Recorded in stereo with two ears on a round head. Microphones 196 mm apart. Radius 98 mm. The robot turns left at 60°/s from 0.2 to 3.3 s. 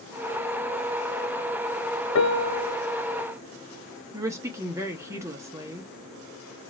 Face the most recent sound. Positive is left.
turn(degrees=-15)  # may be behind; listen again after turning